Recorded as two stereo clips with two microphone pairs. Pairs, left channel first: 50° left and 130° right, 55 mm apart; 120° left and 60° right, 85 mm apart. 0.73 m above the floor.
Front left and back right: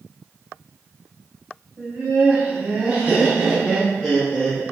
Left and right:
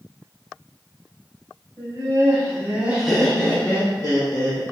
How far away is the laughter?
About 1.2 m.